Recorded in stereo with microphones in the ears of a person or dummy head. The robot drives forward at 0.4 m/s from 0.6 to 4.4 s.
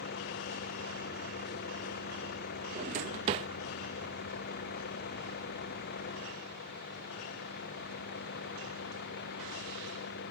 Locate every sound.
0.0 s a vehicle: 55° left (ahead or behind); by 10.3 s 60° left (ahead or behind)
2.8 s a drawer: 35° right (ahead or behind); by 3.5 s 30° right (ahead or behind)